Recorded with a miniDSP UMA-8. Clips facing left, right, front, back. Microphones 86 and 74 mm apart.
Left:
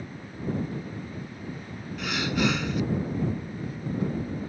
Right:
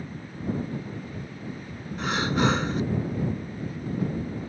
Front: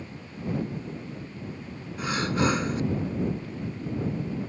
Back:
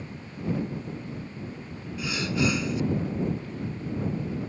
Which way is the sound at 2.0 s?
40° right.